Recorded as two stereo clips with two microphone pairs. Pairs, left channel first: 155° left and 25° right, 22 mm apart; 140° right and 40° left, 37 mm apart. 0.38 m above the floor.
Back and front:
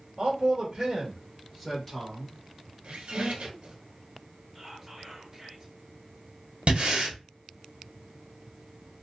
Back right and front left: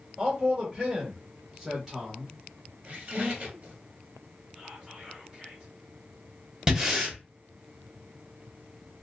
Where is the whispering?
5° right, 1.6 m.